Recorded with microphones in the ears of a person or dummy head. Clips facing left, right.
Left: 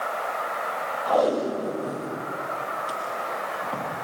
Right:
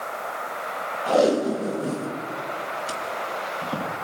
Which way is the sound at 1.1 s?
30° right (ahead or behind).